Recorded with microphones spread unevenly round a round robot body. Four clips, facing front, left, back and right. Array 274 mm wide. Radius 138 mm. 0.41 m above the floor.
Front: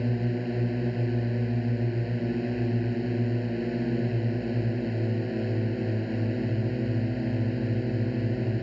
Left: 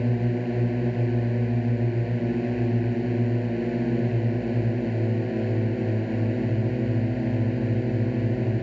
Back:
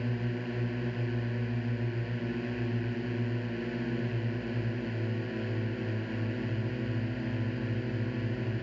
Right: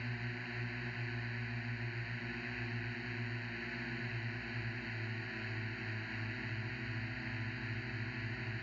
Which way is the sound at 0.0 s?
75° left.